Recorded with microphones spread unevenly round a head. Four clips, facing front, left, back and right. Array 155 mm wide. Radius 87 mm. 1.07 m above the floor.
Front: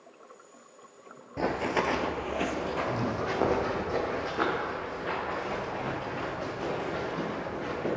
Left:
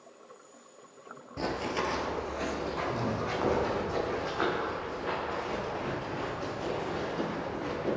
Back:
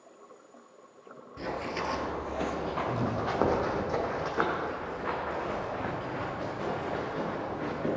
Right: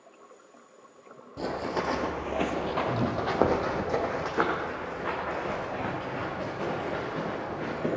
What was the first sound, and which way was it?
Running footsteps, 5° right.